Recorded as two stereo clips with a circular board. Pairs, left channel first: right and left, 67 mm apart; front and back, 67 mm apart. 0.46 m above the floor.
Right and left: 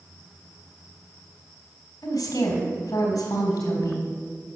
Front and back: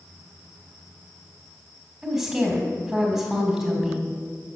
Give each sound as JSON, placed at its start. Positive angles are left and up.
{"t": 2.0, "sound": "a woman speaking", "azimuth_deg": -95, "distance_m": 3.0}